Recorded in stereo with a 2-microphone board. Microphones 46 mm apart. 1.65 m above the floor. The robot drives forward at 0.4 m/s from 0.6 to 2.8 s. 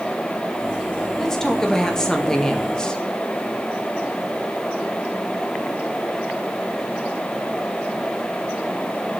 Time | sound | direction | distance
1.2 | a man speaking | 10° left (ahead or behind) | 2.0 m